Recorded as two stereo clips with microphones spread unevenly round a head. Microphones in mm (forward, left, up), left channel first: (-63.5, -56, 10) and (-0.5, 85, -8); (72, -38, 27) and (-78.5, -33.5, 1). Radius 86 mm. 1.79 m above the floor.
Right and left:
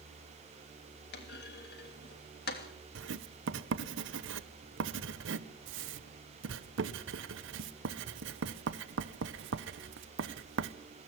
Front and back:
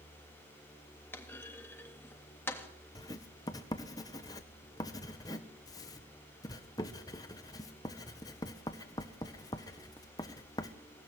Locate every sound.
1.1 s a clunk: 75° right, 3 m
3.0 s writing: 65° left, 1.3 m